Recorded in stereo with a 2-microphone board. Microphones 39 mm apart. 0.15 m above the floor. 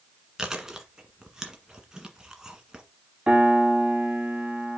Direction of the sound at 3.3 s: 25° right (ahead or behind).